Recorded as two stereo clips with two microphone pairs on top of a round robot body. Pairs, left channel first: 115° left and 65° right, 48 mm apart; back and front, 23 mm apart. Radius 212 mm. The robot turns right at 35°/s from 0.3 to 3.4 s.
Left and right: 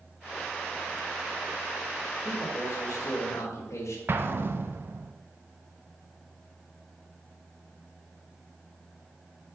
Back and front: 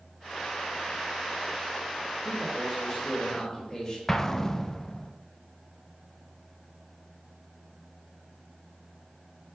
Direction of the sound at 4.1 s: 105° right.